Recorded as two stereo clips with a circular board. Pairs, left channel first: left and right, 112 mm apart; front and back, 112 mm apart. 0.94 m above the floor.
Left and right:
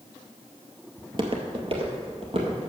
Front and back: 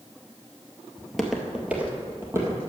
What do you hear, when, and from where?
1.0 s footsteps: 80° right, 1.1 m; by 2.7 s 120° right, 2 m